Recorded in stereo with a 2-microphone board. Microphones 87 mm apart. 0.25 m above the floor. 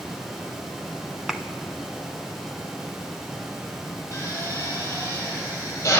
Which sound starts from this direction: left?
A drill, at 4.1 s.